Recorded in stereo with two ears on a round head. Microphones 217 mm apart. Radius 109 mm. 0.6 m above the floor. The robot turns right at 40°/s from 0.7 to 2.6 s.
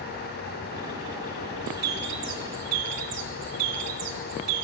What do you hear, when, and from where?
1.7 s a bird: 145° right, 2.5 m; by 4.7 s 105° right, 2.5 m